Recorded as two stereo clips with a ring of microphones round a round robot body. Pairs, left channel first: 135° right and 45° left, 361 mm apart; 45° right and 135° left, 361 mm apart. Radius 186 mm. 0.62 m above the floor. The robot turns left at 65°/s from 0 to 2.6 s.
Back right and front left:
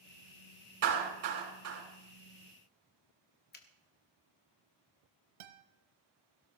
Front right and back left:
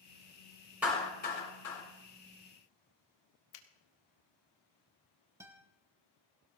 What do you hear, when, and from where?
0.8 s a clap: 50° left, 6.5 m; by 1.8 s 15° right, 6.5 m
3.5 s a finger snap: 75° right, 1.6 m
5.4 s a guitar: 50° left, 1.3 m